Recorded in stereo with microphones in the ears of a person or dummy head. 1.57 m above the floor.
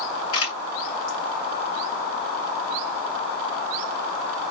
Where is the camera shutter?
85° left, 3 m.